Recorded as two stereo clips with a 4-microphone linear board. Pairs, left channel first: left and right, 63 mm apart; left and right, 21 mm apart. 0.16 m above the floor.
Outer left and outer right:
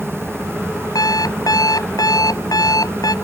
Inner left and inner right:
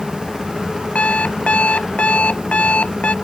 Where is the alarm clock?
80° left.